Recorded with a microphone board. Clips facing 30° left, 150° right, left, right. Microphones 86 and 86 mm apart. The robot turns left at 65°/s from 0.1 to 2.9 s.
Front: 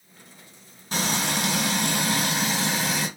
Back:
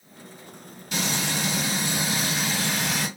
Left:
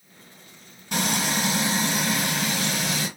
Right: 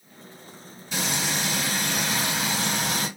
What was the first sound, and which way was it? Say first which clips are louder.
Frying: front 2 dB, left 3 dB; 75° left.